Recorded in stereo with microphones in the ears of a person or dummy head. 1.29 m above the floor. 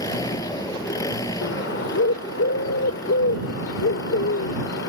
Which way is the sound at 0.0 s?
20° left (ahead or behind).